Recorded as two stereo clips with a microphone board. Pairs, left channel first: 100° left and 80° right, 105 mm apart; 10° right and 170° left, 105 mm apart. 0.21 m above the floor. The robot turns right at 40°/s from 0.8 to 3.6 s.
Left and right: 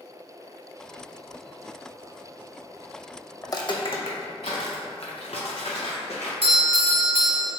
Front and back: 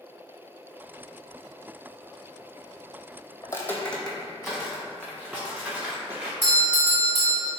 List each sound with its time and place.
3.4 s footsteps: 35° left, 0.5 m; by 6.3 s 95° left, 2 m
6.4 s a doorbell: 35° right, 1.5 m